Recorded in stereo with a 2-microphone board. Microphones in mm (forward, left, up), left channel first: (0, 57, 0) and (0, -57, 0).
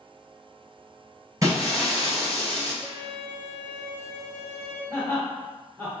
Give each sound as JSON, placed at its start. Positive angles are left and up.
{"t": 1.4, "sound": "breaking glass", "side_deg": -30, "distance_m": 1.5}
{"t": 2.8, "sound": "a violin", "side_deg": 15, "distance_m": 1.3}
{"t": 4.9, "sound": "laughter", "side_deg": -35, "distance_m": 1.7}